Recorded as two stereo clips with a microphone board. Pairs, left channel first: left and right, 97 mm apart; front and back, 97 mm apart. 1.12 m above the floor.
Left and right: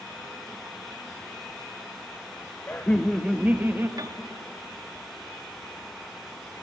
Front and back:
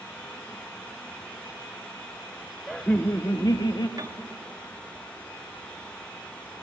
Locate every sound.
2.7 s laughter: 85° left, 0.7 m; by 3.9 s 30° right, 1.1 m
4.0 s a piano: 135° right, 1.1 m